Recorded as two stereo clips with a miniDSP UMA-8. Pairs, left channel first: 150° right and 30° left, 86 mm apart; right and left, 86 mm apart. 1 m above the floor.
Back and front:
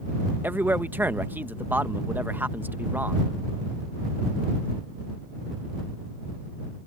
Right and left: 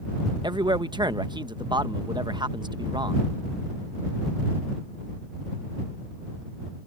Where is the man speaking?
95° left.